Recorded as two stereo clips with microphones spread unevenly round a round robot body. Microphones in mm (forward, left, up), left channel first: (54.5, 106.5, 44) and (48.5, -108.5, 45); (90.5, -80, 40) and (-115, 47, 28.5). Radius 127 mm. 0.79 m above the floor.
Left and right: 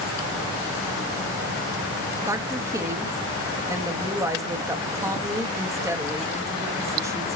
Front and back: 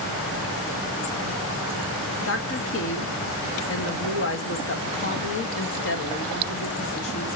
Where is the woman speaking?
20° right, 1.4 m.